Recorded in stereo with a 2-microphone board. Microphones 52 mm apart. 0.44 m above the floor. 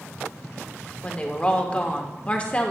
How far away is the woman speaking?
About 1.0 m.